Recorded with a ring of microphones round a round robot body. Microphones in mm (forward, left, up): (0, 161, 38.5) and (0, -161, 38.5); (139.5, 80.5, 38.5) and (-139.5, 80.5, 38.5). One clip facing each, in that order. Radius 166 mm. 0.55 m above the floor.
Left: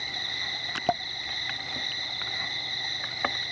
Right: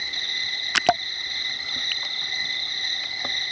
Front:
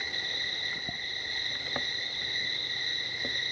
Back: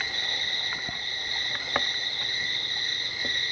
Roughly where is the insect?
Right.